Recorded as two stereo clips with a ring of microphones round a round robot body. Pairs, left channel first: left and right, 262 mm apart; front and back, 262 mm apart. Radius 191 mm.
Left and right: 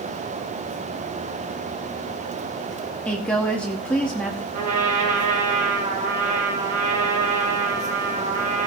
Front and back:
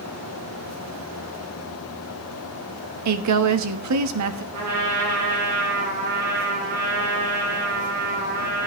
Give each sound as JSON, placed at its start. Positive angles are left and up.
{"t": 3.0, "sound": "a woman speaking", "azimuth_deg": 175, "distance_m": 1.5}
{"t": 4.5, "sound": "a trumpet", "azimuth_deg": -140, "distance_m": 4.5}